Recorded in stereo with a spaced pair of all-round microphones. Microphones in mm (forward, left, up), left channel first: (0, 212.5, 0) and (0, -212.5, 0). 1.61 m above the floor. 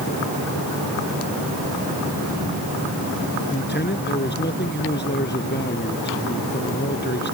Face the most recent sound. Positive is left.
turn(degrees=25)  # may be behind; listen again after turning